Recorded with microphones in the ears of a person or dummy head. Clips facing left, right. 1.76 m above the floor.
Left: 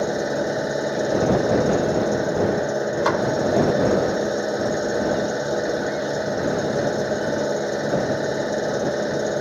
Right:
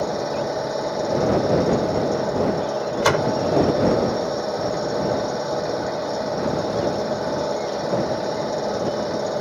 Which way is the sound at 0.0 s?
20° left (ahead or behind).